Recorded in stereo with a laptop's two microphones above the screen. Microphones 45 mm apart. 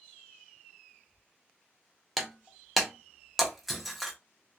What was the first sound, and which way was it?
Breaking glass, centre (ahead or behind).